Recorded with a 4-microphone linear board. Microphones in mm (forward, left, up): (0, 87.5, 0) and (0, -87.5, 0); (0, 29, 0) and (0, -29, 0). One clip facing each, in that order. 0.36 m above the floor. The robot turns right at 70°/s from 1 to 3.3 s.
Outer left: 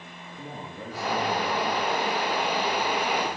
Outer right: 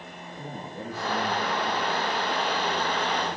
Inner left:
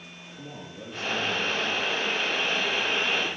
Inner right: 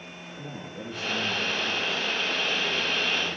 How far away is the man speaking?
About 9 m.